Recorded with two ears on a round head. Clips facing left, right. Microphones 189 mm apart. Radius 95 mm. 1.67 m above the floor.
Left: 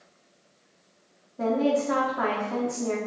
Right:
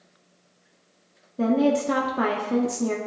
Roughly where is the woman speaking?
Right.